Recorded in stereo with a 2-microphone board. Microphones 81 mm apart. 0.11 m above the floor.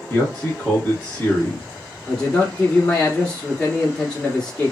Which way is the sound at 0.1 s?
20° left (ahead or behind).